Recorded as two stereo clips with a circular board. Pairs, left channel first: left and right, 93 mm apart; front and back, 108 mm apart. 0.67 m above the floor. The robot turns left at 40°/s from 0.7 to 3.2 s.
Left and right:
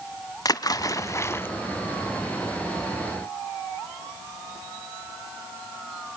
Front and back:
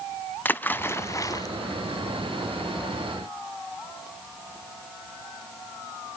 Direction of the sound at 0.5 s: 65° left.